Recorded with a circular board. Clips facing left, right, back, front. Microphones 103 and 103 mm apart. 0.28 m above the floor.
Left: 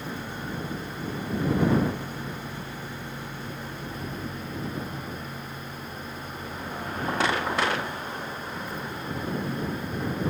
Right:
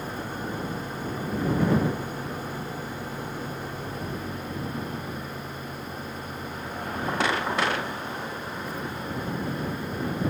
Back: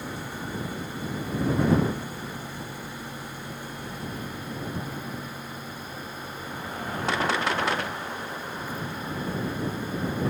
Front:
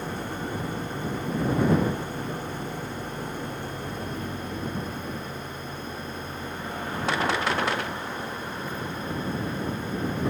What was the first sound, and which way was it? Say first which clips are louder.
An engine running: right 2 dB, front 3 dB; 40° right.